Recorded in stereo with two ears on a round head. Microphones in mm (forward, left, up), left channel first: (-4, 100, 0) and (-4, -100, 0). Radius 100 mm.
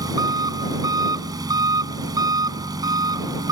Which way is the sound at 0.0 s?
20° right (ahead or behind).